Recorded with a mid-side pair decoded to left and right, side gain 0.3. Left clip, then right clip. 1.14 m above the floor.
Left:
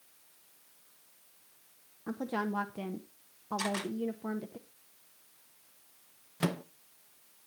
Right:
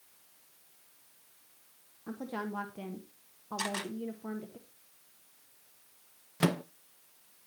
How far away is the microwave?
About 0.6 m.